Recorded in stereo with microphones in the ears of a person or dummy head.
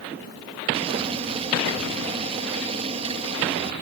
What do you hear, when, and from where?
0.7 s boiling: 35° right (ahead or behind)